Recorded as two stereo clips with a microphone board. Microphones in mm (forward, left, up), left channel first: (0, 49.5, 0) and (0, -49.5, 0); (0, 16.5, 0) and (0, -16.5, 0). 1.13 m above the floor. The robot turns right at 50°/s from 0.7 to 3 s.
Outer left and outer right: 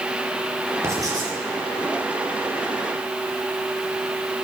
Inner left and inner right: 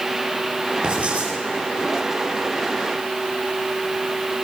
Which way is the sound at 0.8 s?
25° right (ahead or behind).